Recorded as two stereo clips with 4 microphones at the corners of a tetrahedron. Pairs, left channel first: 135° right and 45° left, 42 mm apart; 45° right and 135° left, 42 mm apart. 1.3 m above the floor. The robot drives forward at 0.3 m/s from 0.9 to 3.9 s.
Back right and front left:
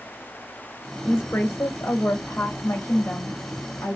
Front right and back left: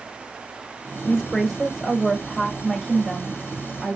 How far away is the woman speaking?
About 1.6 m.